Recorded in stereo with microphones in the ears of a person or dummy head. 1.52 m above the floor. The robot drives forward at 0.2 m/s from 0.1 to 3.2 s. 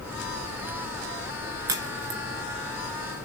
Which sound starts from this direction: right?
A crack, at 1.7 s.